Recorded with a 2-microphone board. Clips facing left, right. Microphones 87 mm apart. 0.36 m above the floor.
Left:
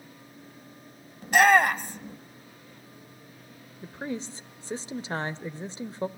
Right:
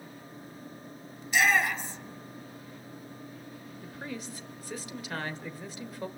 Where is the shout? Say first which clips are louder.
Left 7 dB; 50° left (ahead or behind), 1.3 m.